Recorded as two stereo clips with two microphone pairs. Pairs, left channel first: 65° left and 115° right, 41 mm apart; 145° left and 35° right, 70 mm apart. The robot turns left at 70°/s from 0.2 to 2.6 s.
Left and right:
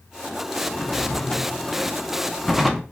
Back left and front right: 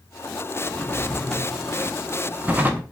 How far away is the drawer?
About 0.7 m.